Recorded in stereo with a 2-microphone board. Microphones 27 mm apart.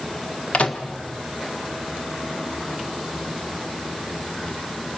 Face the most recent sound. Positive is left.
turn(degrees=55)  # may be behind; listen again after turning